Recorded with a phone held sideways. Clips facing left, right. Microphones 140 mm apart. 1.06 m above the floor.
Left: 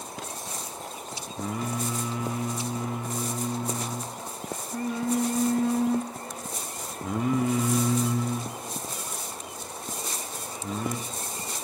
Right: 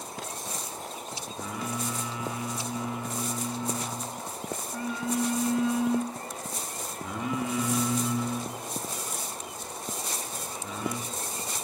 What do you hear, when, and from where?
1.4 s singing: 45° left (ahead or behind), 0.7 m